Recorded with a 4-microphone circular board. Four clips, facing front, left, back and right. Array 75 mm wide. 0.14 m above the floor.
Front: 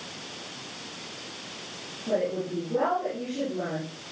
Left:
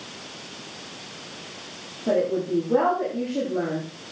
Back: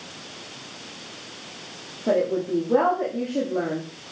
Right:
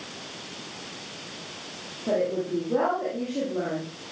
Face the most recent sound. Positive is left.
turn(degrees=165)